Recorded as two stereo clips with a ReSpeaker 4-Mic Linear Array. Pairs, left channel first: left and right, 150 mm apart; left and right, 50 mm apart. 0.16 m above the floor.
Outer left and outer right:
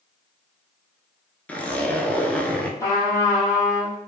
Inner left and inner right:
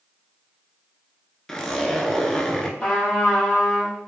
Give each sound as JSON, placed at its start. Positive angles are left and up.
{"t": 1.5, "sound": "a zipper", "side_deg": 10, "distance_m": 0.6}
{"t": 2.8, "sound": "a trumpet", "side_deg": 20, "distance_m": 1.9}